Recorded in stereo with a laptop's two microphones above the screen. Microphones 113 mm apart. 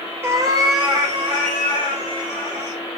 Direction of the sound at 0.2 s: 20° right (ahead or behind).